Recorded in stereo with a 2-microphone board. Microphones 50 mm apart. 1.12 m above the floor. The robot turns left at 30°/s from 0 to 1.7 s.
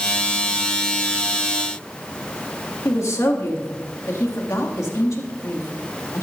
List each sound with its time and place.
2.9 s a woman speaking: 75° left (ahead or behind), 2 m